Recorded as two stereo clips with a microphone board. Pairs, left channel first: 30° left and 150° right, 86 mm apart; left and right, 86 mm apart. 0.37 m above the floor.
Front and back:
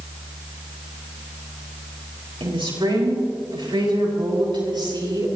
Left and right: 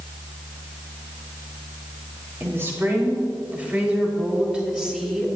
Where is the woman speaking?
150° right, 6.5 m; by 5.3 s 175° right, 7 m.